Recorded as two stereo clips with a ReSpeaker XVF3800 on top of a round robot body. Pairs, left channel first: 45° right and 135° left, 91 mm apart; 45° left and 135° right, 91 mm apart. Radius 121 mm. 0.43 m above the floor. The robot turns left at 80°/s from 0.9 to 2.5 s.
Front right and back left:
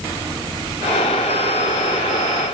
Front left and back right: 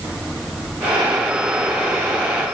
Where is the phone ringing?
No phone ringing in this recording.